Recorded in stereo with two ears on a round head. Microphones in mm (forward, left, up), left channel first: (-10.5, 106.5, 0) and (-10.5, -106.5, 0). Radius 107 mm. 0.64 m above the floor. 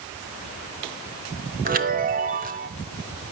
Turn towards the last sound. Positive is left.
turn(degrees=-40)  # may be behind; listen again after turning